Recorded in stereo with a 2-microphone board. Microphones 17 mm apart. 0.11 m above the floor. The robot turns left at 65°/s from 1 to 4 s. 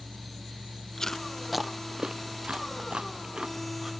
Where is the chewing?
35° left (ahead or behind); by 3.9 s 30° right (ahead or behind).